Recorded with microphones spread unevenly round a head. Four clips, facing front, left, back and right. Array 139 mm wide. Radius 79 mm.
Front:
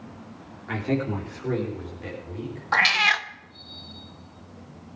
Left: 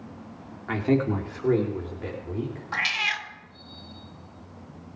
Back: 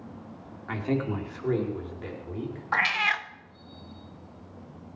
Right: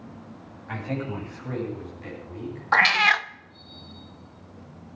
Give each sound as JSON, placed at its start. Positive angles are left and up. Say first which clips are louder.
{"t": 0.7, "sound": "a man speaking", "louder": "left 8 dB, front 2 dB", "azimuth_deg": 75, "distance_m": 3.0}
{"t": 2.7, "sound": "a cat meowing", "louder": "right 12 dB, front 4 dB", "azimuth_deg": -50, "distance_m": 0.6}